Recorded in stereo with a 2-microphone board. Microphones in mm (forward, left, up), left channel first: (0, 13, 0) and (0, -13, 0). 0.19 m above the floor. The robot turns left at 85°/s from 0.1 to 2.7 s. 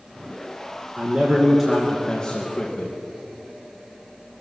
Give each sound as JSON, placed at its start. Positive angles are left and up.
{"t": 1.0, "sound": "a man speaking", "azimuth_deg": -110, "distance_m": 2.5}